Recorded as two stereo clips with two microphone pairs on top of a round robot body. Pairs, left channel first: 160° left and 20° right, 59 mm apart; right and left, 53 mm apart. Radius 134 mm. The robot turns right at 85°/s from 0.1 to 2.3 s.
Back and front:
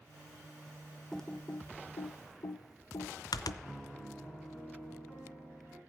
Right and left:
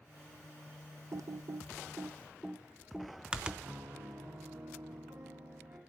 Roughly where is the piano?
Left.